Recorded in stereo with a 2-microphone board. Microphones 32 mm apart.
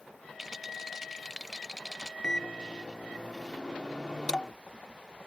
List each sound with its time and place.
0.4 s a rattle: 10° right (ahead or behind)
2.2 s a microwave: 25° left (ahead or behind)